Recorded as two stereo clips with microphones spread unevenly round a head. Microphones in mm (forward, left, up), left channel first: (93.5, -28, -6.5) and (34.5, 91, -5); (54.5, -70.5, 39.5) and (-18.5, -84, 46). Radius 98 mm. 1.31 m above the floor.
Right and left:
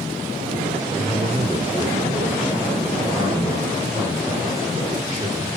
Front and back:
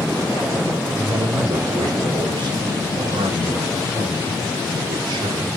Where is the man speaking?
175° right, 3.5 m.